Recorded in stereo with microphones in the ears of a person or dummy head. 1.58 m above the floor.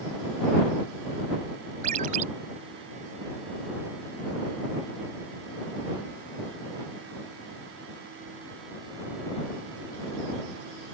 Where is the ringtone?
50° right (ahead or behind).